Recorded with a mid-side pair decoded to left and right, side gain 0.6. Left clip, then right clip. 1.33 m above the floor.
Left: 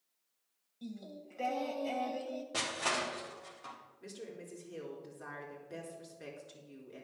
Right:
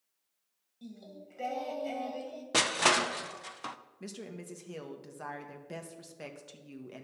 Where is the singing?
5° left, 1.9 m.